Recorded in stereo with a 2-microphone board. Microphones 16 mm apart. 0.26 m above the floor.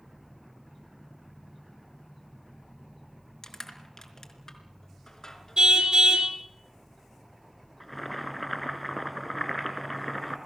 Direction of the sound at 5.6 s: 70° right (ahead or behind).